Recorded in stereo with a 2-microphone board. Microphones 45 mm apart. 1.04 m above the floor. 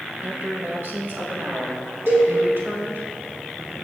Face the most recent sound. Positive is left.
turn(degrees=-60)  # may be behind; listen again after turning